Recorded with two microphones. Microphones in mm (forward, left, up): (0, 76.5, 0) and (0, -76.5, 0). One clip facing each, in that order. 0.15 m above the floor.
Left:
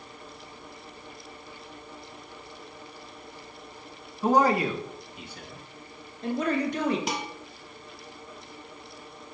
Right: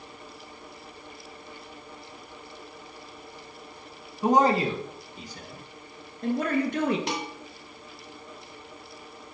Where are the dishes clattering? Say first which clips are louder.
Right 1 dB; centre (ahead or behind), 1.7 m.